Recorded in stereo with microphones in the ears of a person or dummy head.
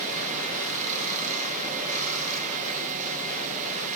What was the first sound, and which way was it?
Running water, 40° right (ahead or behind).